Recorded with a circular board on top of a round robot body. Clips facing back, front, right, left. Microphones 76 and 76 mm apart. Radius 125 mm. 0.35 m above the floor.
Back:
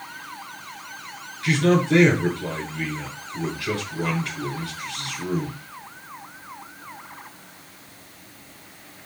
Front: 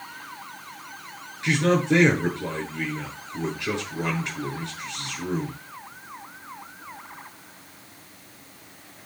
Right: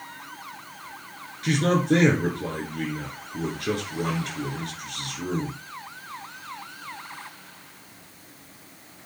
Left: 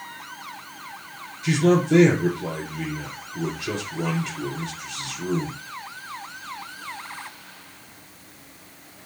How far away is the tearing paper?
No tearing paper in this recording.